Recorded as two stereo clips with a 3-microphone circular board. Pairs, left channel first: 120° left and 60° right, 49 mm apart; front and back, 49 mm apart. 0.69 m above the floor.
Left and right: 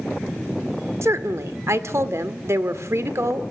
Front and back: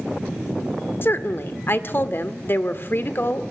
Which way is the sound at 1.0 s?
40° right.